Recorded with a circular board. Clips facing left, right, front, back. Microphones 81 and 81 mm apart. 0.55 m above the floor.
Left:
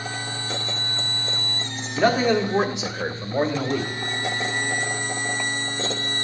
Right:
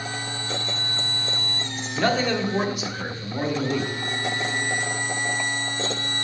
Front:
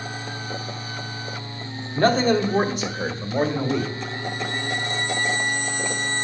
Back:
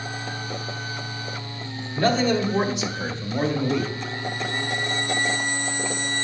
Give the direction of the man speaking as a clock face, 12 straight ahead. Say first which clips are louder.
Left 4 dB, front 2 dB; 12 o'clock.